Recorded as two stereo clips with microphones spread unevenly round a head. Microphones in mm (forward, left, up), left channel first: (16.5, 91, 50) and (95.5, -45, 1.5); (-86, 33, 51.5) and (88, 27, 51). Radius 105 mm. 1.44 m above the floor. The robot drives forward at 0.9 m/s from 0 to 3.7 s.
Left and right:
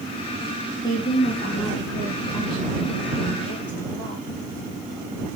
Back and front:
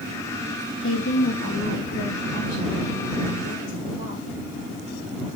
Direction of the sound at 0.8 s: 165° right.